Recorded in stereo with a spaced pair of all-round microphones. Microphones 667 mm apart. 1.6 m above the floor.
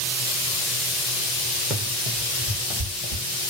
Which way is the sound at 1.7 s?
Centre (ahead or behind).